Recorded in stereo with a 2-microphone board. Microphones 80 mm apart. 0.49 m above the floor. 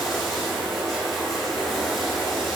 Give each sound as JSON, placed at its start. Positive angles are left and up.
{"t": 0.0, "sound": "running water", "side_deg": 0, "distance_m": 6.0}